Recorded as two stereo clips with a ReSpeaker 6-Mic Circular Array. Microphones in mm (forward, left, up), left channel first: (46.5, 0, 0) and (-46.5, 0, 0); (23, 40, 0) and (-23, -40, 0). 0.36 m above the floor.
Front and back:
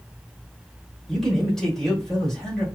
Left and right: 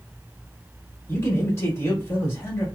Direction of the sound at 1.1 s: 85° left.